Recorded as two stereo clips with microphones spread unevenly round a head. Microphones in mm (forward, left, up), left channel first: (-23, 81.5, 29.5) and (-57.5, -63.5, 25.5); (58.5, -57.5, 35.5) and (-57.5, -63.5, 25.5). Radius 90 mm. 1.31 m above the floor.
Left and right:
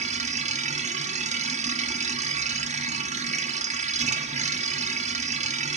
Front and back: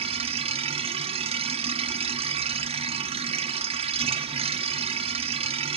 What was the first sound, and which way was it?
A machine running, 145° right.